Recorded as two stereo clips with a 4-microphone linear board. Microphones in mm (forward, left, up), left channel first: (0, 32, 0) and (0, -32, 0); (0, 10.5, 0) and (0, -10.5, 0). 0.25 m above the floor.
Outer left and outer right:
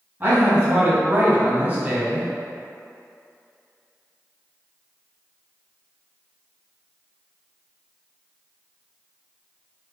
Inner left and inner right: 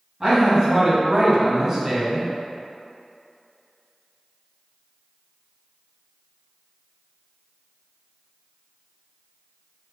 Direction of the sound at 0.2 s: 30° right (ahead or behind).